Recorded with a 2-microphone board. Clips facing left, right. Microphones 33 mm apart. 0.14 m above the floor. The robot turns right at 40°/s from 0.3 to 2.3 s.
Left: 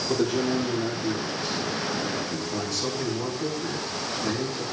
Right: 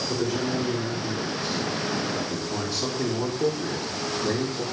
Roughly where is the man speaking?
Behind left.